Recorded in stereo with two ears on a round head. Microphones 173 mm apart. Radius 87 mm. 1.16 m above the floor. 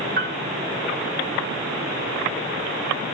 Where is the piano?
50° right (ahead or behind).